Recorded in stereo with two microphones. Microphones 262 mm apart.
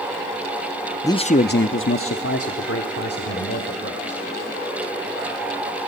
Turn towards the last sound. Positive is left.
turn(degrees=65)  # may be behind; listen again after turning